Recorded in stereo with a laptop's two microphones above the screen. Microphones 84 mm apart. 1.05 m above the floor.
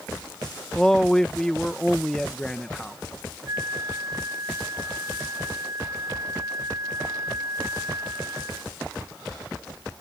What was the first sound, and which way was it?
A man speaking, 5° left (ahead or behind).